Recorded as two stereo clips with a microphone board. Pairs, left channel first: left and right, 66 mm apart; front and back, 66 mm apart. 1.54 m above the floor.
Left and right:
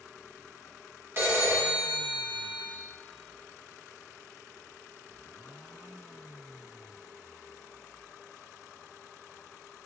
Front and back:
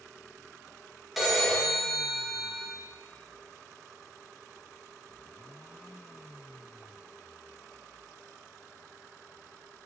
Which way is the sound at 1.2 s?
95° right.